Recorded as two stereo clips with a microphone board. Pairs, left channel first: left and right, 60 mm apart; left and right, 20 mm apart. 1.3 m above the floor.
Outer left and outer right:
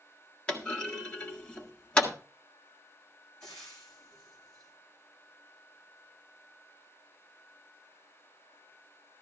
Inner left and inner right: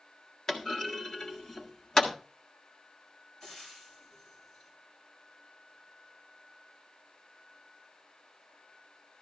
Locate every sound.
0.5 s a clunk: 20° left (ahead or behind), 1.7 m
3.4 s frying: 10° left (ahead or behind), 7 m